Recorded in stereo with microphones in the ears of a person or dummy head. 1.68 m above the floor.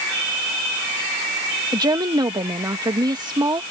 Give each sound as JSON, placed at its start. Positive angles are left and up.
{"t": 1.7, "sound": "a woman speaking", "side_deg": -20}